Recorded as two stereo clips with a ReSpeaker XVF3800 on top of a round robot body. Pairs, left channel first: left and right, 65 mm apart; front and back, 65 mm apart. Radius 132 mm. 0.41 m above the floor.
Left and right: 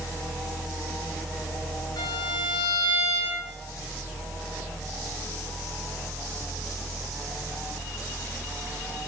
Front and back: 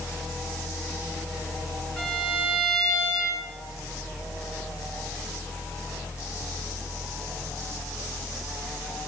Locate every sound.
2.0 s a violin: 80° left, 4.5 m